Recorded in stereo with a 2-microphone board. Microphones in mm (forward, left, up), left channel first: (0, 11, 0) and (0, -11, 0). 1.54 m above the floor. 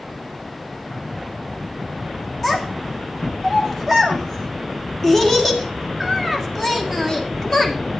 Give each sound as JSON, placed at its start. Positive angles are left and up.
{"t": 2.4, "sound": "a child speaking", "side_deg": 10, "distance_m": 2.5}